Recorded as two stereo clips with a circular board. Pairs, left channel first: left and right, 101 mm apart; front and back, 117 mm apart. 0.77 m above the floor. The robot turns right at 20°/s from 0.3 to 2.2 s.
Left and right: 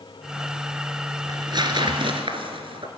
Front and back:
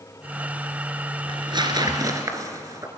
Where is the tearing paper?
140° right, 2.5 m; by 2.9 s 120° right, 2.5 m.